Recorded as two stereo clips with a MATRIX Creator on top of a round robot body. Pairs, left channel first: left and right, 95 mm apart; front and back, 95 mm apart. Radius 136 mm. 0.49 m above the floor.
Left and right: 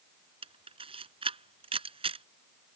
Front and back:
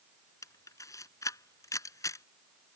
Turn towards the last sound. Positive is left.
turn(degrees=-60)